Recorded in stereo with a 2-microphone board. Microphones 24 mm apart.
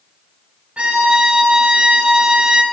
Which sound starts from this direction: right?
A violin, at 0.8 s.